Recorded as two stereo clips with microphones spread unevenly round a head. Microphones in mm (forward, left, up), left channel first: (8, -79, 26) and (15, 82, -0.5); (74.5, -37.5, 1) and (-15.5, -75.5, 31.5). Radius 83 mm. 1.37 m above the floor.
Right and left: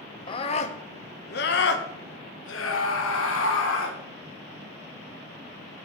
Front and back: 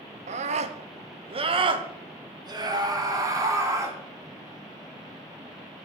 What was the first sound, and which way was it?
A scream, 160° right.